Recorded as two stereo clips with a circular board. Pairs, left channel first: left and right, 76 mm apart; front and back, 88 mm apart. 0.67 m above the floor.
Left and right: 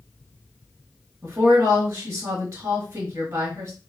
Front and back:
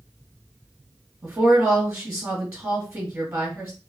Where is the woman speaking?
125° right, 1.3 m.